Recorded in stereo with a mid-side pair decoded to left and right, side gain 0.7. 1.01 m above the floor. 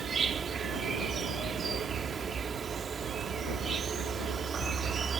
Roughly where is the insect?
Ahead right.